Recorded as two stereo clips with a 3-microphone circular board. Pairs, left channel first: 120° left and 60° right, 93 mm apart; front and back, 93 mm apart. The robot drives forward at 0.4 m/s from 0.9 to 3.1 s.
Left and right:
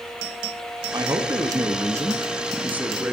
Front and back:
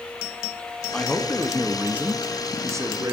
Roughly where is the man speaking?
Right.